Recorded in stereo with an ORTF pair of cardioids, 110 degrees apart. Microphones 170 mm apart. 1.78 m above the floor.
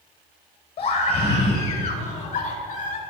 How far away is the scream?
About 9 m.